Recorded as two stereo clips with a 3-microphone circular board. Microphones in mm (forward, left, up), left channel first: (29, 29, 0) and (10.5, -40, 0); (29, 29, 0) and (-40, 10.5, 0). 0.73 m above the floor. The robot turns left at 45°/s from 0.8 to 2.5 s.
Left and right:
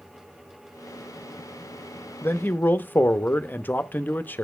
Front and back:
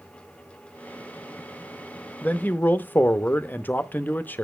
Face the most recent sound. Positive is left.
turn(degrees=50)